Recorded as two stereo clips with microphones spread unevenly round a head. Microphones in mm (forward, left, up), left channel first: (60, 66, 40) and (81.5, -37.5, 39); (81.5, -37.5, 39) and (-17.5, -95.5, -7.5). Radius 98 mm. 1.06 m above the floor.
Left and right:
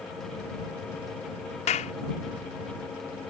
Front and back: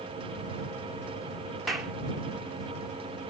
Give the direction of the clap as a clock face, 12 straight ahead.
8 o'clock.